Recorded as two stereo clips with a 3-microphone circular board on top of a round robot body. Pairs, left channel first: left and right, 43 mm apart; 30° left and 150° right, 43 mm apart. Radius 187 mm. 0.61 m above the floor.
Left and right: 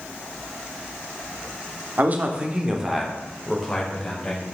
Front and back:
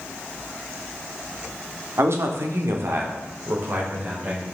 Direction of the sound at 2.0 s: 135° right.